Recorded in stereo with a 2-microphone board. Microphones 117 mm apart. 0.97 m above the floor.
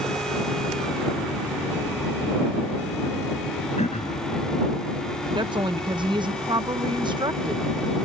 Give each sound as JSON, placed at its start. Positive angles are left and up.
{"t": 3.8, "sound": "throat clearing", "side_deg": 60}
{"t": 5.3, "sound": "a woman speaking", "side_deg": -40}